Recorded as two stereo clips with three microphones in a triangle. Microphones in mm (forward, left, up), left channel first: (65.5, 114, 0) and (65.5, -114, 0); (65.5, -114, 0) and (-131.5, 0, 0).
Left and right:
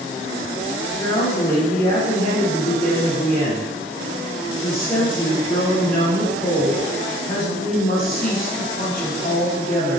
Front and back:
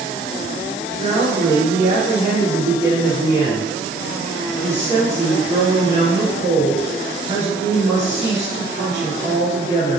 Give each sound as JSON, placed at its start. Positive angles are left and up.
{"t": 1.0, "sound": "a woman speaking", "azimuth_deg": 140, "distance_m": 1.4}